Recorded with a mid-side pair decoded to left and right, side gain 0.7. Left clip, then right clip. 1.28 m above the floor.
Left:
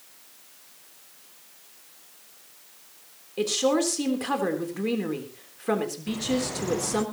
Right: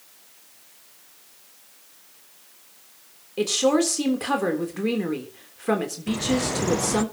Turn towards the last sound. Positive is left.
turn(degrees=-30)